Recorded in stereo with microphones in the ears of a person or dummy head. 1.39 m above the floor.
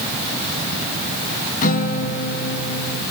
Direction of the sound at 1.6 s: 45° left (ahead or behind).